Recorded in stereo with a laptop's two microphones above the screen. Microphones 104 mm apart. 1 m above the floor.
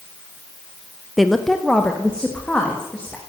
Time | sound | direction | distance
1.2 | a woman speaking | centre (ahead or behind) | 0.6 m